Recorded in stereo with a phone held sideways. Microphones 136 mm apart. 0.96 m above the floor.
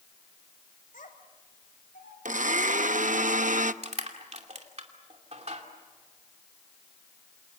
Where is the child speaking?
80° left, 4 m; by 2.1 s 85° left, 3 m.